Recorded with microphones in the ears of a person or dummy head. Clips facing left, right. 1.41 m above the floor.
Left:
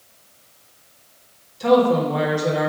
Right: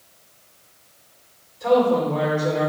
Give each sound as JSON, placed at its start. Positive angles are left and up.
{"t": 1.6, "sound": "a woman speaking", "side_deg": 75, "distance_m": 2.0}